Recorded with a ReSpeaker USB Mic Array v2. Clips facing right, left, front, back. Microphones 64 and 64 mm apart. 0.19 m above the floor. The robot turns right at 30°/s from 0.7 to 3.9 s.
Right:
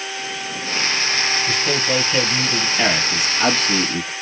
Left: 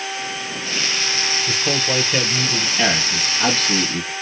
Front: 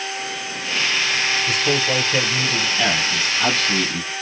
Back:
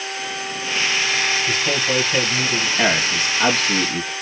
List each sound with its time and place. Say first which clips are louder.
1.5 s a man speaking: right 1 dB, front 1 dB; 65° left, 1.1 m; by 2.7 s 100° left, 1.1 m
2.8 s a man speaking: even, back 4 dB; 145° right, 1.1 m; by 4.1 s 110° right, 1.1 m